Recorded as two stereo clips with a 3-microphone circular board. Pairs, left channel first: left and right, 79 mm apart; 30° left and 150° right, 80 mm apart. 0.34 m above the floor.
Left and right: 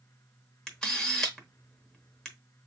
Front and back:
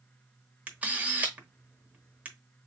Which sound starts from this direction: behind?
A camera shutter, at 0.7 s.